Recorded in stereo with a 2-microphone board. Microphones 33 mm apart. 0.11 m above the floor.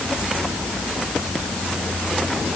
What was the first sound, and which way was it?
Only background noise.